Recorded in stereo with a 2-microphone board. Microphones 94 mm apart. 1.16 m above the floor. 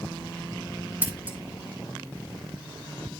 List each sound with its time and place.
1.0 s scissors: 20° right (ahead or behind), 2 m